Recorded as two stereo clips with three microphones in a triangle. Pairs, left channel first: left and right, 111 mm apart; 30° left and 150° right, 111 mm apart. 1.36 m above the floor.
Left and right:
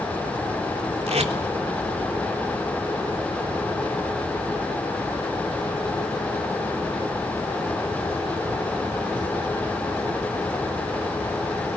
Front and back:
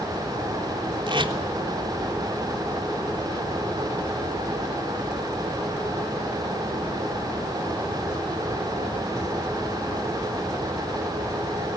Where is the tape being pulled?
110° right, 3.5 m.